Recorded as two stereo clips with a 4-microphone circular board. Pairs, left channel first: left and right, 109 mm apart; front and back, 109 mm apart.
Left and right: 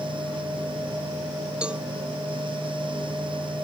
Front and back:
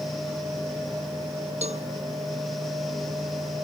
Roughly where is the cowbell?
Behind.